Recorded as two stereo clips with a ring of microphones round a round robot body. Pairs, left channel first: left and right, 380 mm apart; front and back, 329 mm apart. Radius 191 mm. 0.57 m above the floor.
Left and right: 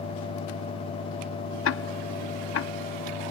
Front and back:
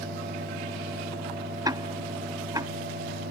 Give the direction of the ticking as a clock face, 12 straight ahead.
8 o'clock.